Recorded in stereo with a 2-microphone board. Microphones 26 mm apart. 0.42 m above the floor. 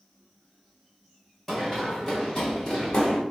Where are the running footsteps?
Centre (ahead or behind), 1.8 m; by 3.2 s 35° left (ahead or behind), 2.5 m.